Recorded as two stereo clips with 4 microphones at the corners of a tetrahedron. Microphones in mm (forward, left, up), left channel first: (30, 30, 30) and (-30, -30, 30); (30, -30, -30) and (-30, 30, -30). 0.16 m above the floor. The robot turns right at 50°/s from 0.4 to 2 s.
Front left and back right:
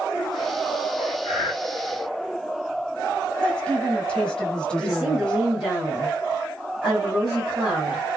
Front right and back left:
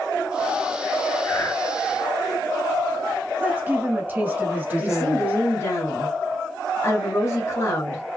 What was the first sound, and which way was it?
Breathing, 80° right.